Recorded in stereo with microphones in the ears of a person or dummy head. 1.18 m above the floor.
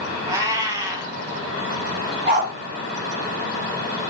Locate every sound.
0.3 s a cat meowing: 10° right (ahead or behind), 0.7 m
2.3 s a dog barking: 45° right (ahead or behind), 1.6 m